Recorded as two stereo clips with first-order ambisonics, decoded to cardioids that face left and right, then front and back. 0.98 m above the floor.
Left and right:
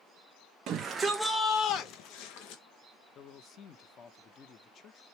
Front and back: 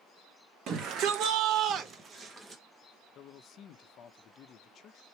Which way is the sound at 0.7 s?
140° right.